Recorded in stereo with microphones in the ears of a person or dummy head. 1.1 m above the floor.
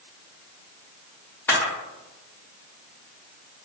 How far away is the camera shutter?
About 0.7 m.